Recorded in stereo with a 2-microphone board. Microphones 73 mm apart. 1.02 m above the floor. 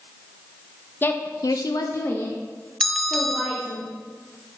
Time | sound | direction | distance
1.0 | a woman speaking | 25° left (ahead or behind) | 0.8 m
2.8 | a bell | 5° left (ahead or behind) | 0.6 m